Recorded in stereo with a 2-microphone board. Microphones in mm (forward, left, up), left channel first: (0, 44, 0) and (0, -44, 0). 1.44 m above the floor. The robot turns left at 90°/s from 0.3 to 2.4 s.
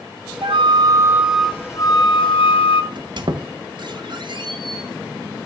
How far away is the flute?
About 1.0 m.